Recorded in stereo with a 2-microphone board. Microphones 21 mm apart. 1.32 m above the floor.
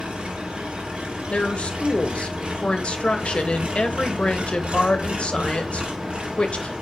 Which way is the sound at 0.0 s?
70° right (ahead or behind).